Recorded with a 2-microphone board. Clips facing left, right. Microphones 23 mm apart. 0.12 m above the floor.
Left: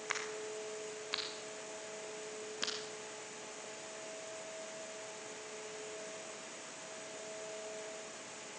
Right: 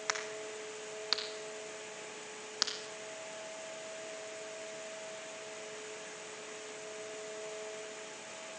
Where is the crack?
65° right (ahead or behind), 3 m.